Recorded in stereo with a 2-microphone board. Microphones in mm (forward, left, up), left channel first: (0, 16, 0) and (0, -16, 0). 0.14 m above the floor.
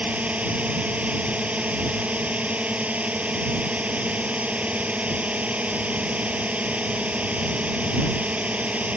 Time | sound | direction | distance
0.0 | a drone | 45° right (ahead or behind) | ?